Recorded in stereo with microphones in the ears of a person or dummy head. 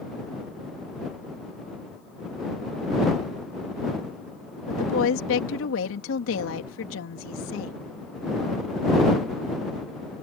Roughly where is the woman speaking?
Left.